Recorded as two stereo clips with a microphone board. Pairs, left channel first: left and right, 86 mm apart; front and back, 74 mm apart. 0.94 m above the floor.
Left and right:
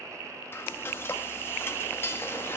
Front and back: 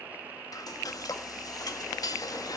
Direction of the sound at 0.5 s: 30° left.